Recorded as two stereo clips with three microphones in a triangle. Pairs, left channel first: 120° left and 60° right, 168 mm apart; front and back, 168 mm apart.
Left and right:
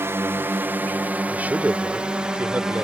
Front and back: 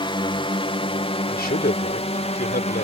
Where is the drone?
Straight ahead; by 2.8 s 25° left.